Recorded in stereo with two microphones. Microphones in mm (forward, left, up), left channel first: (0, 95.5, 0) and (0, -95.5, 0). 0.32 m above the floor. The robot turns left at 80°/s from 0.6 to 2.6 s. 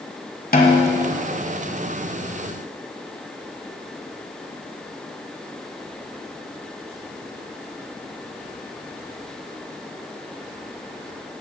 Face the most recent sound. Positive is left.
turn(degrees=-45)